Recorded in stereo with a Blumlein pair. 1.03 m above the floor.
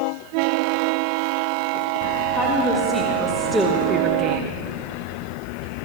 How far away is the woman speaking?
About 2.5 m.